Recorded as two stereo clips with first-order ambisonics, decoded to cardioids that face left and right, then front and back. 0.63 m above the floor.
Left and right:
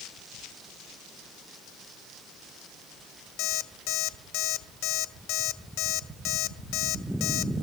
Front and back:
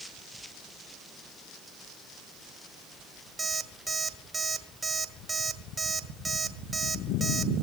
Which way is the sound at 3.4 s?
100° left.